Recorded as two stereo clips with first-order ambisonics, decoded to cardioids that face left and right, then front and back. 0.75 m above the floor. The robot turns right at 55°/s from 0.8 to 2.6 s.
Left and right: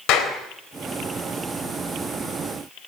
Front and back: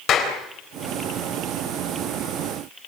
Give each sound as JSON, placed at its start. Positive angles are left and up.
{"t": 0.1, "sound": "a clap", "azimuth_deg": 55, "distance_m": 4.0}